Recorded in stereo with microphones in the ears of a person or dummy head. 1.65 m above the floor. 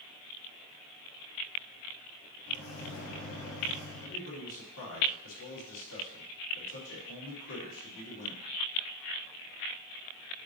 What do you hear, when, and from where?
2.5 s a microwave: 75° left (ahead or behind), 1.4 m
4.0 s a man speaking: 70° left (ahead or behind), 3.5 m